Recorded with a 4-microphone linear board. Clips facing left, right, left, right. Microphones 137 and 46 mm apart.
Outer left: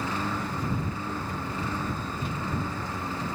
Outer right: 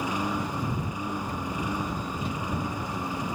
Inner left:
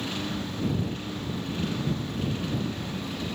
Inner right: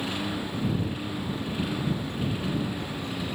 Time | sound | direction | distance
0.0 | a lawn mower | 15° right (ahead or behind) | ?